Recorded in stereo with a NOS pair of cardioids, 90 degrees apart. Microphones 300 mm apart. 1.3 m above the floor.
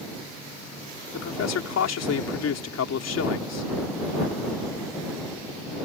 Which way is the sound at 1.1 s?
55° left.